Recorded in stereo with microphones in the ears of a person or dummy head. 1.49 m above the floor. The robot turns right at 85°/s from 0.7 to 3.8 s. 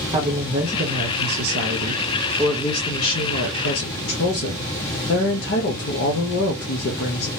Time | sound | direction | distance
0.1 | a woman speaking | 150° right | 0.8 m